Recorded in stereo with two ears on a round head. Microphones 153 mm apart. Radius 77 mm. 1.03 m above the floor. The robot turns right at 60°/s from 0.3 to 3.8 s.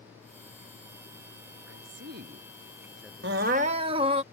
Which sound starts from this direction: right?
A woman speaking, at 1.7 s.